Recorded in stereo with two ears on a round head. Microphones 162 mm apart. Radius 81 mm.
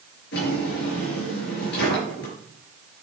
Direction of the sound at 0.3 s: 65° left (ahead or behind).